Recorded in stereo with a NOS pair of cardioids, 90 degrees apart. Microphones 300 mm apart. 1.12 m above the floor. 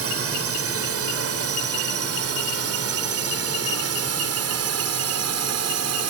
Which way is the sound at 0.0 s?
50° right.